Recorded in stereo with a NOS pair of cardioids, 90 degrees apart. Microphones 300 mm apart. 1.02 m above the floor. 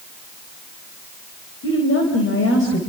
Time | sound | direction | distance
1.6 | a woman speaking | 45° left | 4.5 m